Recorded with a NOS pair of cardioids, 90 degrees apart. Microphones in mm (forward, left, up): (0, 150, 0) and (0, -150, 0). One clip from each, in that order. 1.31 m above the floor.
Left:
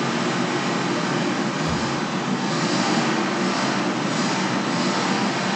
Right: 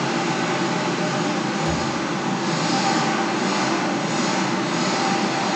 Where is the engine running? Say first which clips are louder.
Right 1 dB; 30° right, 1.0 m.